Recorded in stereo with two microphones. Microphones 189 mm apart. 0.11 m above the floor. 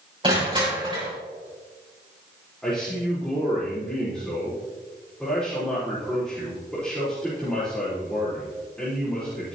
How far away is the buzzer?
I don't hear a buzzer.